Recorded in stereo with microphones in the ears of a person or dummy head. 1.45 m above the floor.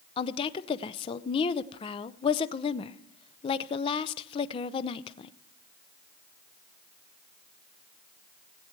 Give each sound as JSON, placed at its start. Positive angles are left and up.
{"t": 0.2, "sound": "a woman speaking", "side_deg": 30, "distance_m": 0.6}